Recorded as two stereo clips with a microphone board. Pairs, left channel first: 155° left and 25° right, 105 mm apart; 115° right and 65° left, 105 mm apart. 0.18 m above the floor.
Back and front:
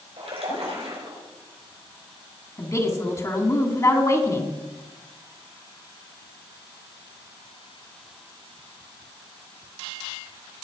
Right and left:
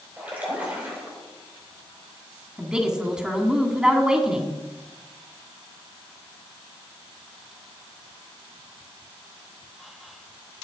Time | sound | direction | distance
0.2 | a splash | 5° right | 6 m
2.6 | a woman speaking | 140° left | 1.8 m